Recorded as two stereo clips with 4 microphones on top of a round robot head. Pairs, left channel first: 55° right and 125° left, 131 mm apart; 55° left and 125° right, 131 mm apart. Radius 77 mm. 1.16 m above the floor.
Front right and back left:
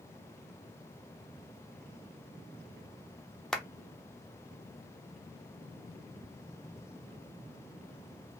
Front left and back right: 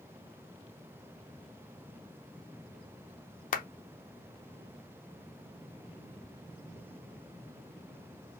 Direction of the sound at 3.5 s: 30° left.